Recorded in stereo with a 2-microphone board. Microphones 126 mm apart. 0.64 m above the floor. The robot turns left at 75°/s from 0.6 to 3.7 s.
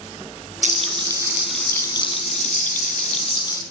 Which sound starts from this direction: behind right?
Frying, at 0.6 s.